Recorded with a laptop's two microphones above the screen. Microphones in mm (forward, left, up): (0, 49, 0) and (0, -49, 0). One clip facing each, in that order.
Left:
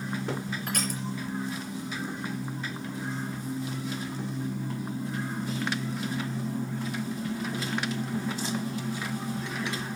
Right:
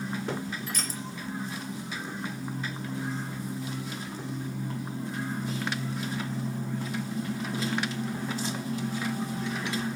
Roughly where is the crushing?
Left.